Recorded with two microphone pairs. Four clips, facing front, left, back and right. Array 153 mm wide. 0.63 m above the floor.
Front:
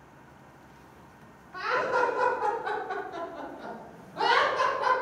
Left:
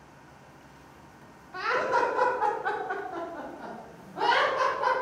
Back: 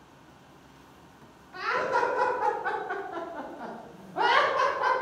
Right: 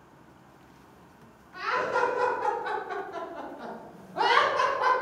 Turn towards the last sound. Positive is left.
turn(degrees=-145)